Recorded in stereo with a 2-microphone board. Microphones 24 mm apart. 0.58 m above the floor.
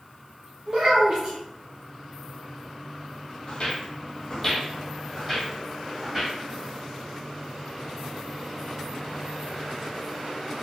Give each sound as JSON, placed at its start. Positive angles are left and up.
{"t": 0.7, "sound": "a child speaking", "side_deg": -50, "distance_m": 1.4}
{"t": 3.5, "sound": "footsteps", "side_deg": 50, "distance_m": 1.0}